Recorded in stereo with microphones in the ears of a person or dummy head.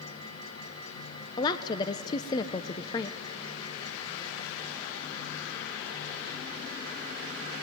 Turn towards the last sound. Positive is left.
turn(degrees=25)  # may be behind; listen again after turning